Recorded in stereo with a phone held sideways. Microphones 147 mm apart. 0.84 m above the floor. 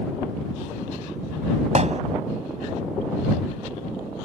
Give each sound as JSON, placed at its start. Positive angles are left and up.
{"t": 1.8, "sound": "hammering", "side_deg": -50}